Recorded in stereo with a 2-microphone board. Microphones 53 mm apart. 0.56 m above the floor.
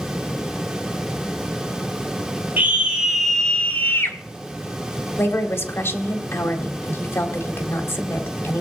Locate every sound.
2.6 s a scream: 35° right (ahead or behind), 1.8 m; by 4.2 s 55° left (ahead or behind), 1.7 m
5.2 s a woman speaking: 50° left (ahead or behind), 1.6 m